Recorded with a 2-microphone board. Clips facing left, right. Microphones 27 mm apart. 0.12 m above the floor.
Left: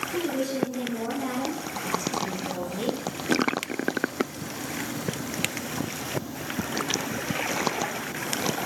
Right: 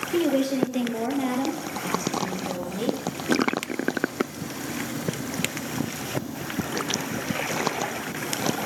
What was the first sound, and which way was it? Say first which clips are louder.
A woman speaking: right 7 dB; 60° right (ahead or behind).